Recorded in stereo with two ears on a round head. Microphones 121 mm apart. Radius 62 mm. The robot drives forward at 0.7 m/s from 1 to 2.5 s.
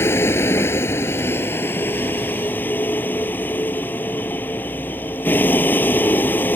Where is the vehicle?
20° left (ahead or behind); by 6.6 s 15° left (ahead or behind).